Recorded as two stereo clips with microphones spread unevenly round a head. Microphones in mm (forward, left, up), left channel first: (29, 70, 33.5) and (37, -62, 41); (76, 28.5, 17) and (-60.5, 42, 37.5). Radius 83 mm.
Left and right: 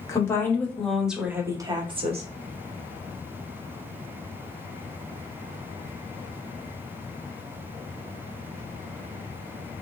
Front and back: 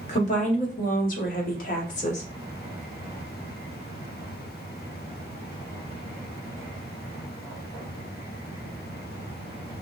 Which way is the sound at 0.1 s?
25° left.